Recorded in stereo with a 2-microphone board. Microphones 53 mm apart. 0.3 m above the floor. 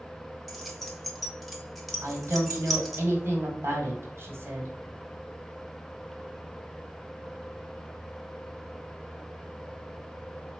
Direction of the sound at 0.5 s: Centre (ahead or behind).